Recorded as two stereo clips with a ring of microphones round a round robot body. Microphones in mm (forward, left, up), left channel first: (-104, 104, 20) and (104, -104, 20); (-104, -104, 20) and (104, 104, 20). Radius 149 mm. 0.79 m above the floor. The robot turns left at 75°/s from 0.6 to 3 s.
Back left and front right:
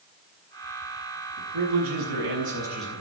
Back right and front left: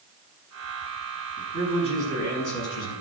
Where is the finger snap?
No finger snap in this recording.